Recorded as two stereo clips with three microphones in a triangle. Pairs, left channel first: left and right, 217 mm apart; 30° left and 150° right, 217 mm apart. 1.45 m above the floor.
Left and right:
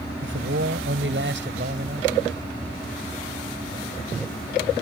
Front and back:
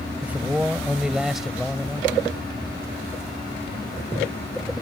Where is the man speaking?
65° right; by 2.1 s 55° right.